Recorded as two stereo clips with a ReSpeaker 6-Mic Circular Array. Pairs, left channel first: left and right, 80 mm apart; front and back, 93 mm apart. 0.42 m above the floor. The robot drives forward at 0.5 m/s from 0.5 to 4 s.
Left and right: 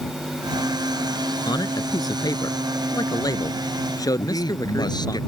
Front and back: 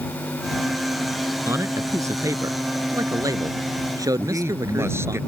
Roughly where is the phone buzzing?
No phone buzzing in this recording.